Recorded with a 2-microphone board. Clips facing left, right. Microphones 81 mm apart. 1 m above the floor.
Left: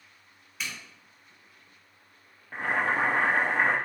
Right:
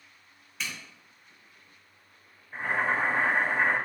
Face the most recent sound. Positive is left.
turn(degrees=70)  # may be behind; listen again after turning